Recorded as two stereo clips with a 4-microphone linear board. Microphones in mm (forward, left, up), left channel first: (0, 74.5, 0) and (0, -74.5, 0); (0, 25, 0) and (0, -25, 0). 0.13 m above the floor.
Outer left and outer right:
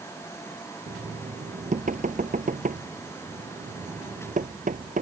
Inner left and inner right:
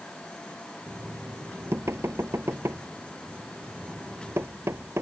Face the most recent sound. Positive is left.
turn(degrees=-65)  # may be behind; listen again after turning